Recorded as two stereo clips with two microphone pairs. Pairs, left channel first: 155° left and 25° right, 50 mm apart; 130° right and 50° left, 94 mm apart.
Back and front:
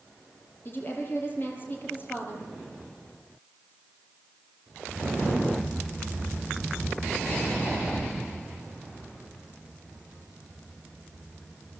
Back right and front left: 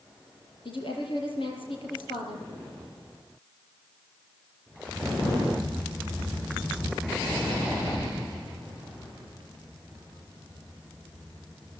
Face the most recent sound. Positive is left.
turn(degrees=-155)